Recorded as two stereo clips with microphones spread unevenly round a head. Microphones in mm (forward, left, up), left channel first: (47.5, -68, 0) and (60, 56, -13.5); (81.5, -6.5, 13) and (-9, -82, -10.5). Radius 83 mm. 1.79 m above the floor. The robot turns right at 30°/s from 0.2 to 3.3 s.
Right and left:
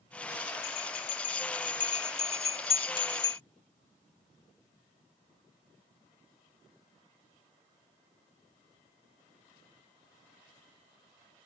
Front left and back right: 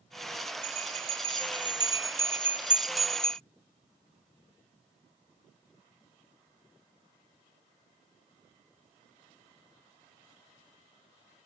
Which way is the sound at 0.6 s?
120° right.